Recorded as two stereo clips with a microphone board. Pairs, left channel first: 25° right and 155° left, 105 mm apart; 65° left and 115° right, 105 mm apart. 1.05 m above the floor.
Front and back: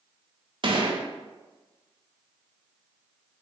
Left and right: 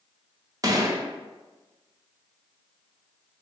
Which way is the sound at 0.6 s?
170° right.